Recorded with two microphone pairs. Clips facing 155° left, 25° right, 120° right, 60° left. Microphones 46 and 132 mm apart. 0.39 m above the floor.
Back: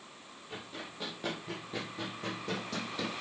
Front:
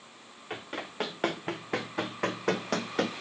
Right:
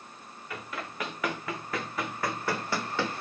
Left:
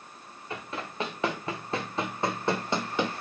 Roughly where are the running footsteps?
Ahead.